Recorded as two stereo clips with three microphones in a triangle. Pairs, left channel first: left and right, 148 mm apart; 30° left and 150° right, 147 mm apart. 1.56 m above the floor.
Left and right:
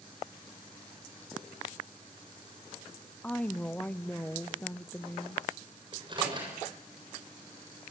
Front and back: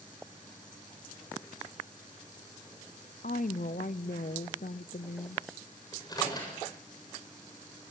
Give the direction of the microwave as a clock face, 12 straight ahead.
1 o'clock.